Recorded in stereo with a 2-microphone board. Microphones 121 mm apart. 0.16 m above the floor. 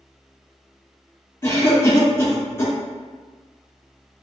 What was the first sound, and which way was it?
A cough, 20° left (ahead or behind).